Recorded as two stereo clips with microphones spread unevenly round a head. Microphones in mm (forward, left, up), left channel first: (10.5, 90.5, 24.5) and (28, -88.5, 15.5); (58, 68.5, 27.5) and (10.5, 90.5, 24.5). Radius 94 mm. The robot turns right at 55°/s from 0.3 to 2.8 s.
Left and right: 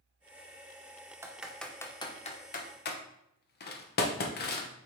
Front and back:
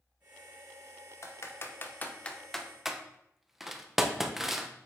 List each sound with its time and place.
1.2 s typing on a keyboard: 15° right, 0.9 m; by 4.7 s 75° left, 0.9 m